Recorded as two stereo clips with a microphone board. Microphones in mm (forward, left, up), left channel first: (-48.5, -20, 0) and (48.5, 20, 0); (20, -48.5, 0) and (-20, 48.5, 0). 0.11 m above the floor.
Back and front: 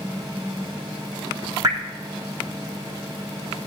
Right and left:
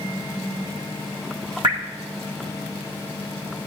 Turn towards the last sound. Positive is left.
turn(degrees=75)